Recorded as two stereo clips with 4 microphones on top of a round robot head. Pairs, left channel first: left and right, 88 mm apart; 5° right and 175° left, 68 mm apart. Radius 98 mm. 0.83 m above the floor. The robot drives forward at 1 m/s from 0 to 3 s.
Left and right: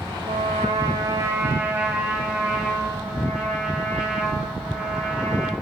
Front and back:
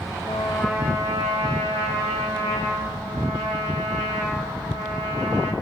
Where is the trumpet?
45° right, 0.7 m; by 5.5 s 170° right, 2.5 m.